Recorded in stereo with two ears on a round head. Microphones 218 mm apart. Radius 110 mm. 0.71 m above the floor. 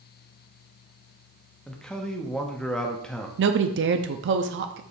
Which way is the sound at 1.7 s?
5° left (ahead or behind).